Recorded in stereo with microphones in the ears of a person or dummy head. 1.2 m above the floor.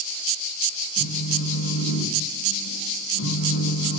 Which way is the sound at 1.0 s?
60° left (ahead or behind).